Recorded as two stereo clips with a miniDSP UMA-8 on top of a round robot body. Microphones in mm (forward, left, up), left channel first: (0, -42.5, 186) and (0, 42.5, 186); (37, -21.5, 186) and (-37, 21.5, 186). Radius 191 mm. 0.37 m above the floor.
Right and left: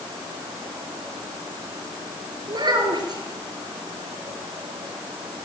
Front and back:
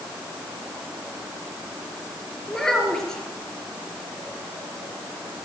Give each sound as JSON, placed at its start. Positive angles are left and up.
{"t": 2.5, "sound": "a child speaking", "azimuth_deg": 55, "distance_m": 5.0}